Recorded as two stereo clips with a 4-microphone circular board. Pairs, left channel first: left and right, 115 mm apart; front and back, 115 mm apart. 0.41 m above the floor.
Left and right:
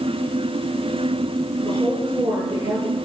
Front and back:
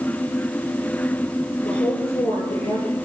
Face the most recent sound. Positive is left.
turn(degrees=-35)